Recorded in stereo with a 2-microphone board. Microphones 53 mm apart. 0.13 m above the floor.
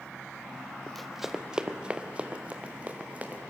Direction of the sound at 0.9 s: 5° left (ahead or behind).